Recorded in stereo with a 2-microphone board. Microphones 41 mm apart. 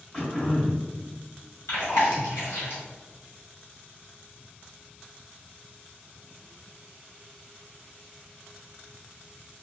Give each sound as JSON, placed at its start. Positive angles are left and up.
{"t": 0.1, "sound": "throat clearing", "side_deg": 30, "distance_m": 1.2}
{"t": 1.7, "sound": "chewing", "side_deg": 80, "distance_m": 1.8}